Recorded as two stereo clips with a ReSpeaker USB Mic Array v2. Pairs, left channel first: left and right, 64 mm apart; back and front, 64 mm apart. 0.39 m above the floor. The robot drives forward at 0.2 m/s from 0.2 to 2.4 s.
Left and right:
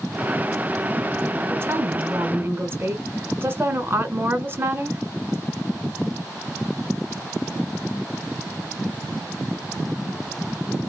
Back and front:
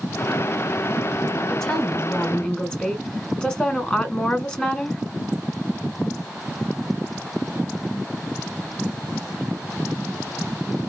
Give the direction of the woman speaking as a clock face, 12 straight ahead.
4 o'clock.